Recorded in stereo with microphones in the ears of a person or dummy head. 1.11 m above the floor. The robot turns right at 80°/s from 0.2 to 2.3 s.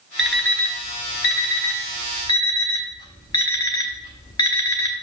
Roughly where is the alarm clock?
Centre.